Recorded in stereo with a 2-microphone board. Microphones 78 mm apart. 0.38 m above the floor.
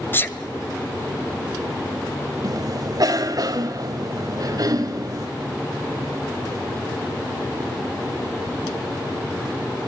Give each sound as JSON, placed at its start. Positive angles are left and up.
{"t": 0.1, "sound": "a sneeze", "side_deg": 25, "distance_m": 1.7}
{"t": 2.4, "sound": "a cough", "side_deg": -55, "distance_m": 1.9}